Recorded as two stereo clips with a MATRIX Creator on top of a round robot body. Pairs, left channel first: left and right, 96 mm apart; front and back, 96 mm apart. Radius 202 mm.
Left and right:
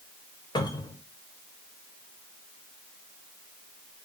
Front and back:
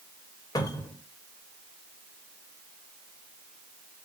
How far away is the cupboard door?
About 1.4 m.